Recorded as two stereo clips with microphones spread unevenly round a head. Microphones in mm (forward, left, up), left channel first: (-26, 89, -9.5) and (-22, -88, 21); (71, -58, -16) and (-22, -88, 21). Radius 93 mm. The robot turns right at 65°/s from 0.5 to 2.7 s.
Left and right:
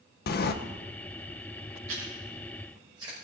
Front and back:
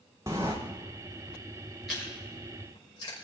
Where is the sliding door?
120° left, 0.6 m; by 0.5 s 125° left, 0.6 m.